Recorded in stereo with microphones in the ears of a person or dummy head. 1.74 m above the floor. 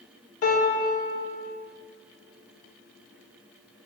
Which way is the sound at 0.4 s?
40° left (ahead or behind).